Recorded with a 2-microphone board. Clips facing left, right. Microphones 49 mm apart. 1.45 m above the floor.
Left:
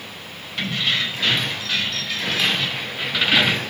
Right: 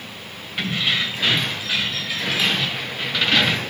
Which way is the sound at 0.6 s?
15° right (ahead or behind).